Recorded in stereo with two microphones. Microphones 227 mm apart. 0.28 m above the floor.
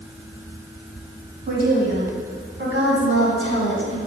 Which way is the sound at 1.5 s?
40° right (ahead or behind).